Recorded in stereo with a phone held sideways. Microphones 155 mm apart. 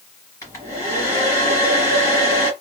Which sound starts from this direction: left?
A hair dryer, at 0.4 s.